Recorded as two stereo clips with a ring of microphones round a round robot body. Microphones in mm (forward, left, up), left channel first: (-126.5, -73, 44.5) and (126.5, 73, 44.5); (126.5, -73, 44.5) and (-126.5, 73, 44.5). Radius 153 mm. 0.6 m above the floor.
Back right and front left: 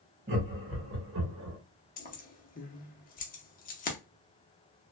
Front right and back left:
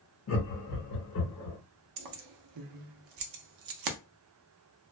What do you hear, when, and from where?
0.3 s laughter: 30° right, 1.4 m; by 1.6 s 15° left, 1.2 m
2.0 s keys jangling: 145° left, 0.6 m